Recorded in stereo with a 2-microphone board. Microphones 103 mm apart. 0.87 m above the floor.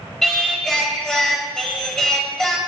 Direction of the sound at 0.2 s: 5° left (ahead or behind).